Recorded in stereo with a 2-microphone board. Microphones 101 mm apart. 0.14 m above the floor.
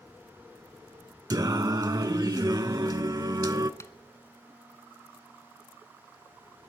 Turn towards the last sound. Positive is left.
turn(degrees=30)  # may be behind; listen again after turning